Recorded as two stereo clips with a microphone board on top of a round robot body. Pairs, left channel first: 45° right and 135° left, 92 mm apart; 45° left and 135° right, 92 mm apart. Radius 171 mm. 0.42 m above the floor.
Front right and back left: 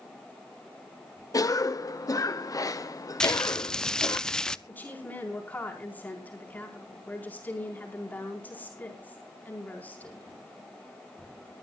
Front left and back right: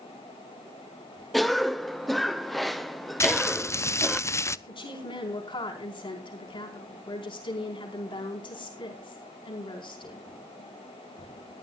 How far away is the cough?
About 0.9 m.